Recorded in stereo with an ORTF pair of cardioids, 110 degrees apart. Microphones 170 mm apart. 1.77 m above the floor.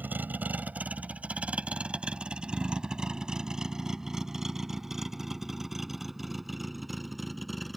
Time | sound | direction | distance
0.0 | a vehicle | 10° right | ?